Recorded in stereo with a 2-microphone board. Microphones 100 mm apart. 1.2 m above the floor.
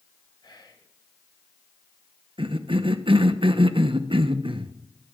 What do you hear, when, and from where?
0.4 s whispering: 45° left (ahead or behind), 1.1 m
2.4 s a cough: 60° right (ahead or behind), 0.7 m